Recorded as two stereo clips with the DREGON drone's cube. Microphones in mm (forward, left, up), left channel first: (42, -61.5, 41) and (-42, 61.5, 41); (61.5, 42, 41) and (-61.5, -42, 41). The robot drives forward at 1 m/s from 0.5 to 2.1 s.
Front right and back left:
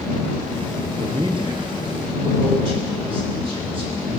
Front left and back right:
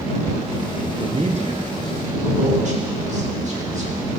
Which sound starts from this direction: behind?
A man speaking, at 1.0 s.